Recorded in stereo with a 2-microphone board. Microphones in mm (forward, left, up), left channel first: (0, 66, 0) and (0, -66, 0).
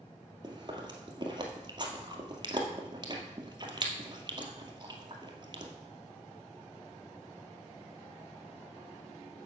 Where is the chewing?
35° right (ahead or behind), 1.6 m.